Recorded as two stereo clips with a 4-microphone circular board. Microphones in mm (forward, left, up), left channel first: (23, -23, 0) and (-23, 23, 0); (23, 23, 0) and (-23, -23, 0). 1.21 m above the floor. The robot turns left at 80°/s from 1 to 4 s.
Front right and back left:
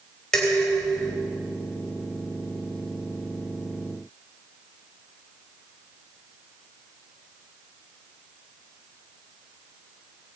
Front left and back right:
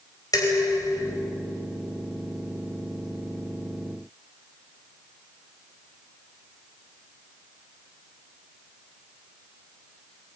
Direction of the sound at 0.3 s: 35° left.